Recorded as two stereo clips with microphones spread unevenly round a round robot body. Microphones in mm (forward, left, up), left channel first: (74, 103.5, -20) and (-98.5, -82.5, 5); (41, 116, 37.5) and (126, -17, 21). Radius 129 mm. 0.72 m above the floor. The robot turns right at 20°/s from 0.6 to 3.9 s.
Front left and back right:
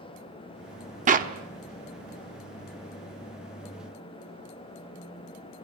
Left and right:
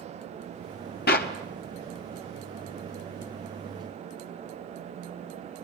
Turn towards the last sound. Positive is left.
turn(degrees=-140)